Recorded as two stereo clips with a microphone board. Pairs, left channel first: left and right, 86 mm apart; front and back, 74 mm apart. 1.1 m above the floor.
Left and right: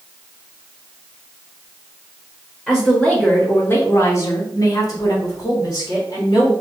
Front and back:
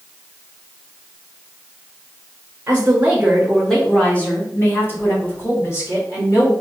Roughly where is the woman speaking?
Behind.